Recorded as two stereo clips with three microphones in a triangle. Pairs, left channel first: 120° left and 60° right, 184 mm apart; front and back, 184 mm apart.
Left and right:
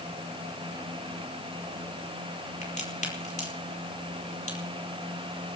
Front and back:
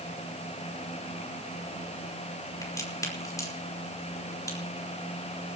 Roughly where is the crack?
Left.